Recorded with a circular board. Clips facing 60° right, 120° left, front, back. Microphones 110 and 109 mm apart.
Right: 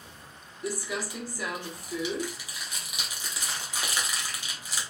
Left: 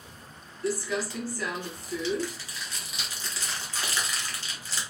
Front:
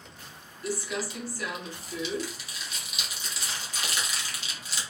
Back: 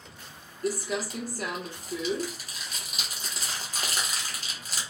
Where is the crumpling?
135° right, 0.8 m.